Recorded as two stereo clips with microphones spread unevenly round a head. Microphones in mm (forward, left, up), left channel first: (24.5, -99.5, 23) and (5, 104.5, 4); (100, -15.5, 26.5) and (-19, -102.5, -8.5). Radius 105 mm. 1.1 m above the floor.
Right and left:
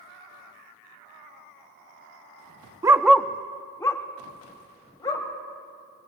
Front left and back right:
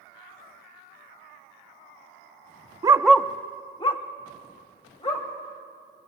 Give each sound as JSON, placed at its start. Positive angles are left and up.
{"t": 2.8, "sound": "a dog barking", "azimuth_deg": 155, "distance_m": 0.5}